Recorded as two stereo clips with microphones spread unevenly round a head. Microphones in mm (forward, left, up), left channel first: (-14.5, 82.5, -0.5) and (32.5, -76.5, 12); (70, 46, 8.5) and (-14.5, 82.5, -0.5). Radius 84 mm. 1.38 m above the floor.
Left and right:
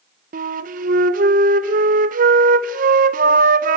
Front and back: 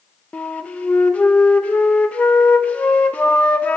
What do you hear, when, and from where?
0.3 s a flute: 100° right, 0.6 m